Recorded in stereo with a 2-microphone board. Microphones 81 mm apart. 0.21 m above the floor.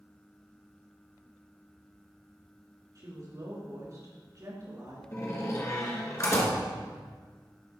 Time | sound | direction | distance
3.0 | a woman speaking | 45° right (ahead or behind) | 2.5 m
5.1 | a door slam | 35° left (ahead or behind) | 1.7 m